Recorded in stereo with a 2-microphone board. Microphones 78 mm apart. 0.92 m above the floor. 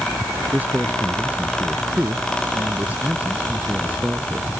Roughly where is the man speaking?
Centre.